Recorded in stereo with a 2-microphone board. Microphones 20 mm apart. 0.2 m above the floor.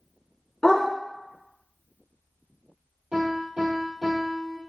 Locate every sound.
0.6 s a dog barking: 45° left (ahead or behind), 0.9 m
3.1 s a piano: 80° right, 2.0 m